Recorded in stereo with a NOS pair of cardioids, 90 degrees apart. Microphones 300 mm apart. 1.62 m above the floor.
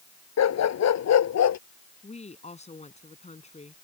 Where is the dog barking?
60° left.